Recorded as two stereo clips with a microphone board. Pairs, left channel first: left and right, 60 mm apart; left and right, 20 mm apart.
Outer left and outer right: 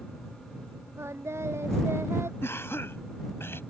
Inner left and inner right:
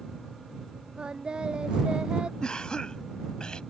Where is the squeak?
I don't hear a squeak.